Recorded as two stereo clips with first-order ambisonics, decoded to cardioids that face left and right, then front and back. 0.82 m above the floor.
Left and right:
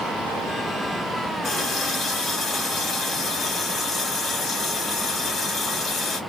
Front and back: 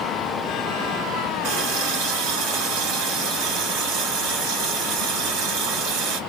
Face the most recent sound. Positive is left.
turn(degrees=160)